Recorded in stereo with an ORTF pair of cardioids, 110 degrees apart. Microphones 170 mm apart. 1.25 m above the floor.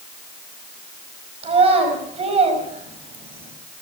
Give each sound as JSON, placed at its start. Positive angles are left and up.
{"t": 1.4, "sound": "a child speaking", "azimuth_deg": -35, "distance_m": 5.0}